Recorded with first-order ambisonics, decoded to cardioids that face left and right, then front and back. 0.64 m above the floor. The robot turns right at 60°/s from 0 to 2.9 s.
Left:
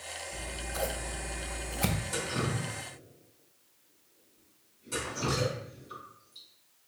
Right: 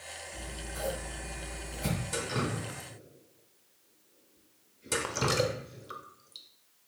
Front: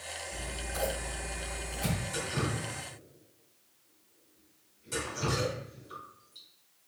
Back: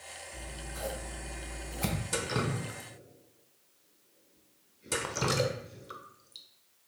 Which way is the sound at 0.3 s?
20° left.